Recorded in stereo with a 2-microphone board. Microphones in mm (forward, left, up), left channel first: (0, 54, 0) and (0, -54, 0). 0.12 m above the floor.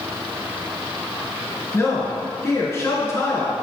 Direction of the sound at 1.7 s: 30° left (ahead or behind).